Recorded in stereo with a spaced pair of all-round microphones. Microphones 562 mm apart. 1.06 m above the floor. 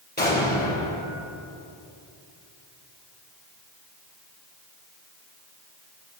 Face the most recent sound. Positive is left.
turn(degrees=15)  # may be behind; listen again after turning